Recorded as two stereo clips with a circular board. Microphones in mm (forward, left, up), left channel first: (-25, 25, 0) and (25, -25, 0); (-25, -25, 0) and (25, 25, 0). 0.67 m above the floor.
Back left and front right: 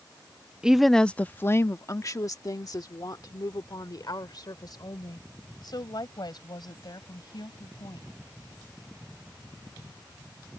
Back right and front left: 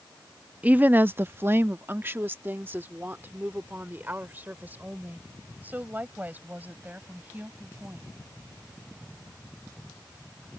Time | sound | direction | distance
0.6 | a woman speaking | 10° left | ?